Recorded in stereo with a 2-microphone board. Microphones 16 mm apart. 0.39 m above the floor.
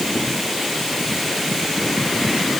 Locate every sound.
Only background noise.